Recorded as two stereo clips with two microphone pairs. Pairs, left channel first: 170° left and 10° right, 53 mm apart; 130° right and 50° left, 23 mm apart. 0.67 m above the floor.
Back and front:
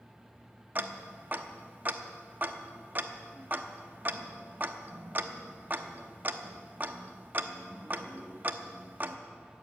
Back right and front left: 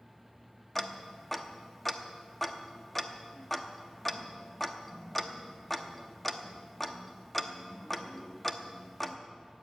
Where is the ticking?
45° right, 0.8 m.